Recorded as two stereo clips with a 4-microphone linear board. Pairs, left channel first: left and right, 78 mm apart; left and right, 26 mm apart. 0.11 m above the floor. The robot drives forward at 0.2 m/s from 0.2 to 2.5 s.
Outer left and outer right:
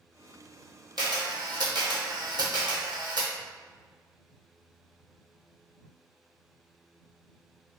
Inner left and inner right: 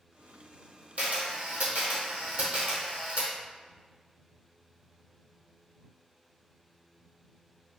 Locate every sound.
1.0 s a camera shutter: 75° right (ahead or behind), 1.0 m; by 3.3 s 65° right (ahead or behind), 1.0 m